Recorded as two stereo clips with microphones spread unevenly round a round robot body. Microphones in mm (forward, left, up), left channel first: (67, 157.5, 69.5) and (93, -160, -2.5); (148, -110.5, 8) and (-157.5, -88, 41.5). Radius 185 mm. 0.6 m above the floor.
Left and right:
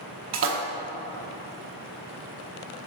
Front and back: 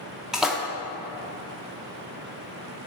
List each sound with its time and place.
0.3 s a splash: 90° right, 1.0 m